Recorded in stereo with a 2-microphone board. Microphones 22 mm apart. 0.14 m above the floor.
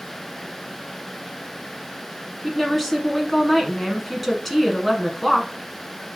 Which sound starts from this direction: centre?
A woman speaking, at 2.4 s.